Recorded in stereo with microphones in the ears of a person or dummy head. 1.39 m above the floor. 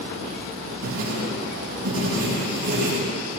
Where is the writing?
70° right (ahead or behind), 4 m.